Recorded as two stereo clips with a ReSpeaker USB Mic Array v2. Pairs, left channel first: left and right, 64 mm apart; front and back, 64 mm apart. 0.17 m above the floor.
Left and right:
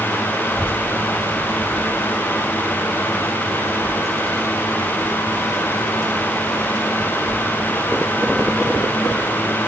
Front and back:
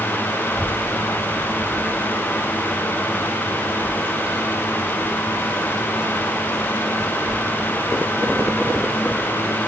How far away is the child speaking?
About 1.7 m.